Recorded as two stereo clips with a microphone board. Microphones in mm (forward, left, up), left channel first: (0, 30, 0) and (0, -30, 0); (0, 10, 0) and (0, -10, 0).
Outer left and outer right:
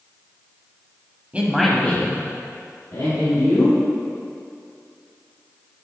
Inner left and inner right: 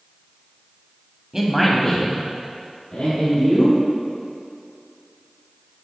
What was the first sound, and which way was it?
A man speaking, 25° right (ahead or behind).